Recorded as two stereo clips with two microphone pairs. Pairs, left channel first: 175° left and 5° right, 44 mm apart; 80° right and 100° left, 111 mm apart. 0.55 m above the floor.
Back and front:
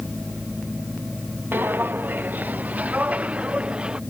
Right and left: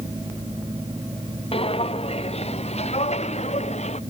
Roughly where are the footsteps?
Ahead right.